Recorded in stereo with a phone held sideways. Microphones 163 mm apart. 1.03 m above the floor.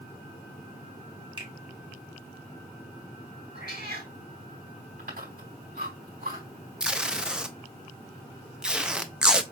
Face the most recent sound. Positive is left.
turn(degrees=-5)  # may be behind; listen again after turning